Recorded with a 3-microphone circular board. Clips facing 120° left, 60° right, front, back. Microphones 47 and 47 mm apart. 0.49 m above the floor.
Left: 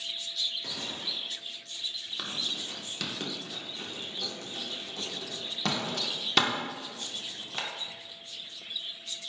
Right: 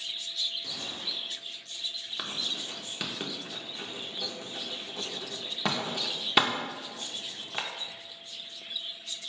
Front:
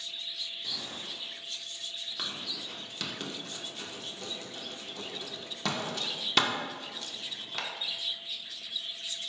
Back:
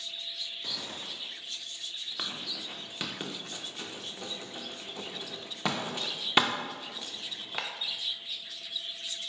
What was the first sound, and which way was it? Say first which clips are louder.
A gunshot: left 1 dB, back 1 dB; 150° left.